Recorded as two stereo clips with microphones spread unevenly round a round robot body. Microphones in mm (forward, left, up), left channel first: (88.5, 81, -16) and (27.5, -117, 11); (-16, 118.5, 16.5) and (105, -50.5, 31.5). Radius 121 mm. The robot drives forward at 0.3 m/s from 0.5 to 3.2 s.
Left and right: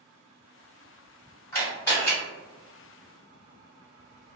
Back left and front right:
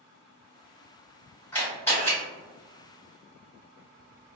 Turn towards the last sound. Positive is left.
turn(degrees=125)